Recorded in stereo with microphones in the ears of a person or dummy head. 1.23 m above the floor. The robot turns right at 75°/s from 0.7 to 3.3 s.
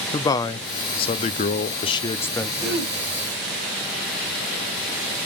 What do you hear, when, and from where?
0.1 s a man speaking: 40° left, 0.5 m; by 2.5 s 175° left, 0.5 m
2.6 s throat clearing: 5° right (ahead or behind), 1.9 m; by 3.0 s 30° right (ahead or behind), 1.9 m